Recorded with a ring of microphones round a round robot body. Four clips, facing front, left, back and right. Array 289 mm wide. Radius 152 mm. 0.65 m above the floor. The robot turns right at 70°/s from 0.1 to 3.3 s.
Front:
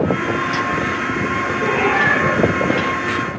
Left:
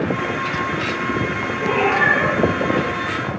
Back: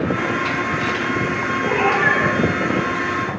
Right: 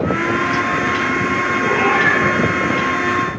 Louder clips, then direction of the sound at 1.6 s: Even, even; 20° left.